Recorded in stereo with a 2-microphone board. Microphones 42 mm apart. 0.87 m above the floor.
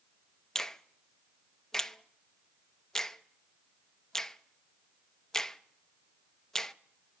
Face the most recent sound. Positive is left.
turn(degrees=10)  # may be behind; listen again after turning